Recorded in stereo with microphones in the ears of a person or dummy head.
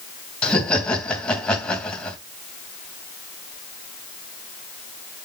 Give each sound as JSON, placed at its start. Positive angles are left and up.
{"t": 0.4, "sound": "laughter", "side_deg": 10, "distance_m": 3.0}